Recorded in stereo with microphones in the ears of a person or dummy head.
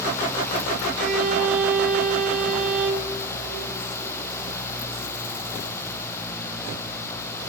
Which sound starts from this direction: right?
A violin, at 0.9 s.